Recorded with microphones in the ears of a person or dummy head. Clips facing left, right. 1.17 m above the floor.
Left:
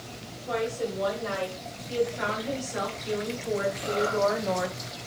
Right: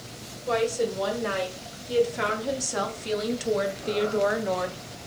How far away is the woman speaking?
About 2.5 m.